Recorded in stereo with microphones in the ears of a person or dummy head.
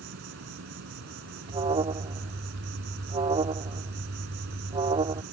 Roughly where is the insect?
Right.